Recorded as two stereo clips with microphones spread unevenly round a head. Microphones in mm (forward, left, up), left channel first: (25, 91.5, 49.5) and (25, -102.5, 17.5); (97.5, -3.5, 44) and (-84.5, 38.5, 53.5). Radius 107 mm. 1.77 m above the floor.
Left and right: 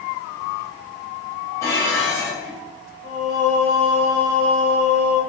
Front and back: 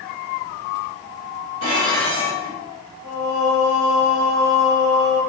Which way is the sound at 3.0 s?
170° right.